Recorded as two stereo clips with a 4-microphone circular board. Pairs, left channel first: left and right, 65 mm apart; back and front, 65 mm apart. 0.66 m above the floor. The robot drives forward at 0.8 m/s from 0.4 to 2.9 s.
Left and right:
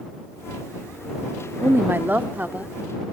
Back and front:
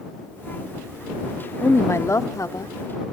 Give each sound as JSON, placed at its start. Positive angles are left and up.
{"t": 1.6, "sound": "a woman speaking", "azimuth_deg": -130, "distance_m": 0.9}